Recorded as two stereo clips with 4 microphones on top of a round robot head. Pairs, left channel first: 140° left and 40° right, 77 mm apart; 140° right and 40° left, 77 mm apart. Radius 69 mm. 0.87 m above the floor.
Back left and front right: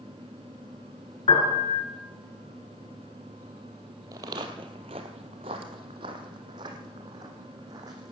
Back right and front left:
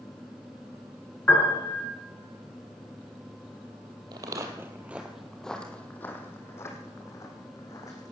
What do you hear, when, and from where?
1.3 s a piano: 150° left, 5.5 m
4.1 s footsteps: 5° left, 1.4 m; by 8.1 s 90° right, 3 m